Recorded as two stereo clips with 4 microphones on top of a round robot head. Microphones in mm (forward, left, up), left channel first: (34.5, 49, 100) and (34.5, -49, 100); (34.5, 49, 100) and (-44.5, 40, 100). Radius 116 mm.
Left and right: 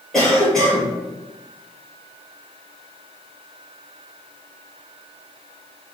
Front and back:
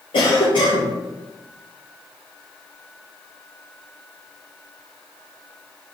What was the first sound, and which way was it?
A cough, 5° left.